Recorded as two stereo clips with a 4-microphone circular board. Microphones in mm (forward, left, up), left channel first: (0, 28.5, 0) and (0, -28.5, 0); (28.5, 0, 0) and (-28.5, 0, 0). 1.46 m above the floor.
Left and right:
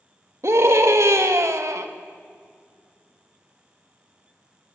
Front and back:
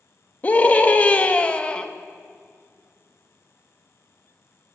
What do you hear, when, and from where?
0.4 s a scream: 60° right, 3 m; by 1.9 s 70° right, 2 m